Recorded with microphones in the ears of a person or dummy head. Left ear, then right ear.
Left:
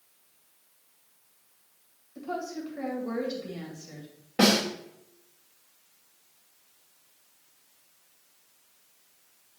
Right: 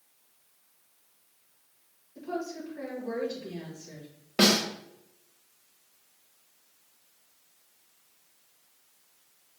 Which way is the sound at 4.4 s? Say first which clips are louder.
Even; 35° right (ahead or behind).